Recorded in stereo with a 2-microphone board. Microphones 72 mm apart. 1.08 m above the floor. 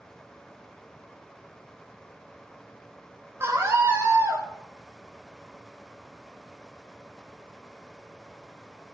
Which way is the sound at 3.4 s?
35° right (ahead or behind).